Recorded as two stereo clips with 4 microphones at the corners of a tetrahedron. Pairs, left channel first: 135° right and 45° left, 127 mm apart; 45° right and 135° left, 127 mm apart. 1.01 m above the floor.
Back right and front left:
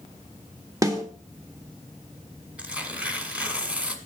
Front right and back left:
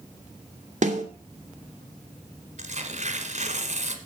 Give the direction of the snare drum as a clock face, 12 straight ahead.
8 o'clock.